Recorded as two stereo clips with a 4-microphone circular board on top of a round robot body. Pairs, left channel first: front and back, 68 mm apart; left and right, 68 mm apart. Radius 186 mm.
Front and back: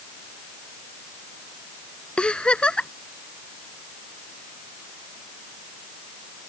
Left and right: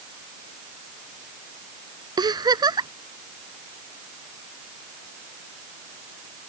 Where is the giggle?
75° right.